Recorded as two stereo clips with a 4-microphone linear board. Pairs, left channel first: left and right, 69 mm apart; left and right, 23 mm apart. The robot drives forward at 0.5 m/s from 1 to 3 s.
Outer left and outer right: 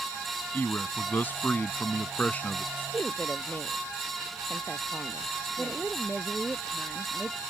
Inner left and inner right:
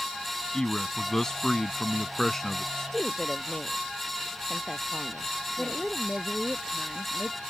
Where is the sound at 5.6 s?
5° left (ahead or behind).